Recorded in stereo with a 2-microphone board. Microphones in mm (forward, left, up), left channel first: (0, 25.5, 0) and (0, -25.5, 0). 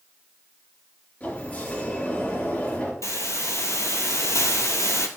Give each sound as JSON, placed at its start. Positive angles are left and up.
{"t": 1.2, "sound": "a sliding door", "side_deg": 35, "distance_m": 3.5}
{"t": 3.0, "sound": "a hiss", "side_deg": 80, "distance_m": 1.1}